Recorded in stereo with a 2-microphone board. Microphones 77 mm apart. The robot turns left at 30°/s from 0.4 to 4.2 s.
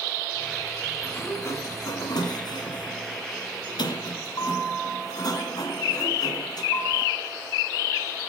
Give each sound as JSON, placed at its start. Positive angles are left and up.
{"t": 1.0, "sound": "a sliding door", "azimuth_deg": 155, "distance_m": 1.9}